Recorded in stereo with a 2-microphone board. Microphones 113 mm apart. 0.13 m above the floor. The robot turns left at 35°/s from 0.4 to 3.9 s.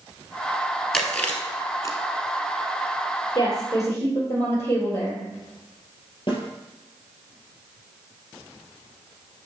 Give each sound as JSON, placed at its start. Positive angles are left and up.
{"t": 0.9, "sound": "chewing", "side_deg": 5, "distance_m": 1.1}
{"t": 3.4, "sound": "a woman speaking", "side_deg": 40, "distance_m": 2.5}
{"t": 6.3, "sound": "a snare drum", "side_deg": 45, "distance_m": 2.5}